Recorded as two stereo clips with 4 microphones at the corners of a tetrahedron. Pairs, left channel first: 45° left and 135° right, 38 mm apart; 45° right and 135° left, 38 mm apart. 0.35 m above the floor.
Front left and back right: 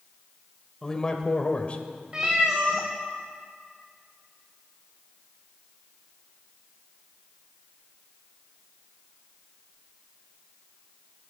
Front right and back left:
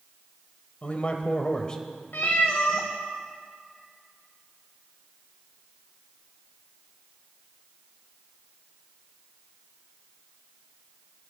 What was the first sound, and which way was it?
A man speaking, 25° right.